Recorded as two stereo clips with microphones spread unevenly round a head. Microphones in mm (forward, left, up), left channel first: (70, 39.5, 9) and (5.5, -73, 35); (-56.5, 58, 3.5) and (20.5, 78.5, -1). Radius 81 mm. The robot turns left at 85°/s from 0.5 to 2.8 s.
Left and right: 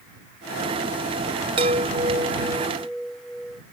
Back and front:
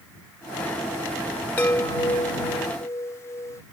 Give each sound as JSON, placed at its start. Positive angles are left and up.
{"t": 1.6, "sound": "a chime", "azimuth_deg": -100}